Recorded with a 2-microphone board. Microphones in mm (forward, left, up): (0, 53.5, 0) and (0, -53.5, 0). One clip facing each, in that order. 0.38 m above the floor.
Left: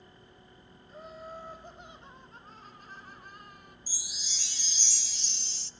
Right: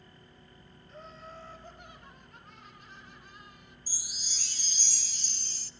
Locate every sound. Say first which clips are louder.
0.9 s laughter: left 4 dB; 5° left (ahead or behind), 1.9 m; by 3.8 s 50° left (ahead or behind), 1.7 m
3.9 s a chime: left 1 dB; 45° right (ahead or behind), 0.8 m